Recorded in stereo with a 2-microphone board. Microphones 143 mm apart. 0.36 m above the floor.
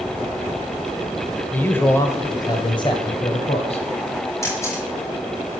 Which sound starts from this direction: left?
A camera shutter, at 4.4 s.